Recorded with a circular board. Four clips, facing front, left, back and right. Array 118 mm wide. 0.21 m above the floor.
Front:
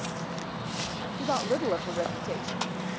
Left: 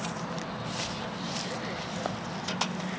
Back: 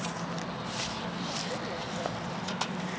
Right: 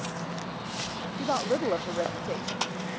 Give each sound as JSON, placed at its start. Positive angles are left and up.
{"t": 1.2, "sound": "a woman speaking", "azimuth_deg": -50}